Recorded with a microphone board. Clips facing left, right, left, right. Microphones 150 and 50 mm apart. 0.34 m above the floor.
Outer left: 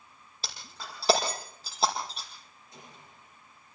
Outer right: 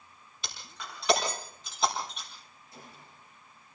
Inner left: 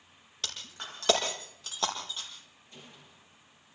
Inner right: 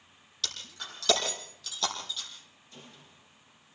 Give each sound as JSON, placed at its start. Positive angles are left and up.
{"t": 0.4, "sound": "breaking glass", "side_deg": 35, "distance_m": 5.0}
{"t": 2.7, "sound": "a gunshot", "side_deg": 20, "distance_m": 7.5}